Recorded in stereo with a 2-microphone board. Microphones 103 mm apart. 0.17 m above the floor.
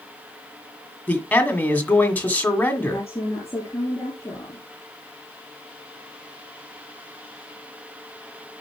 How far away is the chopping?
I don't hear chopping.